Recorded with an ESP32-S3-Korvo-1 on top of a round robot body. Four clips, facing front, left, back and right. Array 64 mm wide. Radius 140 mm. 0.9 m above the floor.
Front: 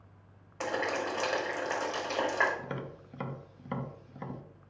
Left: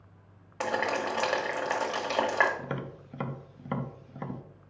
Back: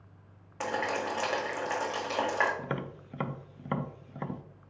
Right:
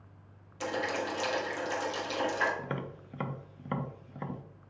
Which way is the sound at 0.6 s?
100° left.